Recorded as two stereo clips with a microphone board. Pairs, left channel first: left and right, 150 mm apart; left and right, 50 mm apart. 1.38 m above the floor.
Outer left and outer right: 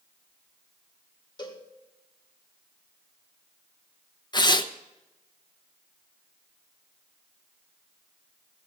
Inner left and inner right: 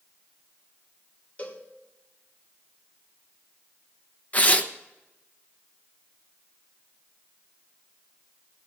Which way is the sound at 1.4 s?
30° left (ahead or behind).